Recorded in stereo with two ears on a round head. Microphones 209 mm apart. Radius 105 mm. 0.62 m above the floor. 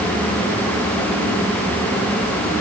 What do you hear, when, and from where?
Only background noise.